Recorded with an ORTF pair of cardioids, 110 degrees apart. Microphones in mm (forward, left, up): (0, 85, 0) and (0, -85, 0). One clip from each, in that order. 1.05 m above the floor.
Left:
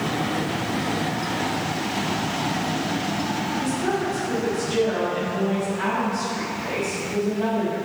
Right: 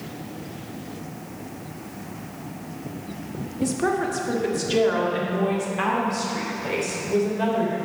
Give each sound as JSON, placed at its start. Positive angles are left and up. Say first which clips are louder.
{"t": 3.6, "sound": "a woman speaking", "louder": "right 5 dB", "azimuth_deg": -50, "distance_m": 1.5}